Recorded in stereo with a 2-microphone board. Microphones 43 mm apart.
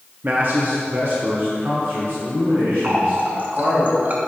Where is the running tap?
45° right (ahead or behind), 0.9 m.